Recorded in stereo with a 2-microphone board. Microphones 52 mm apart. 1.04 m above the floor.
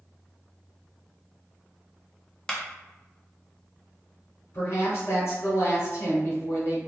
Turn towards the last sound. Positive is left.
turn(degrees=55)  # may be behind; listen again after turning